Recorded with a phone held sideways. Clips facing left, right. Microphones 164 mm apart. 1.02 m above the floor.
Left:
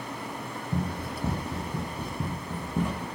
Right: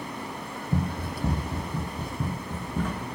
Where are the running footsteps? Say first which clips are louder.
Right 2 dB; 10° right (ahead or behind), 1.4 m; by 3.0 s 20° left (ahead or behind), 3 m.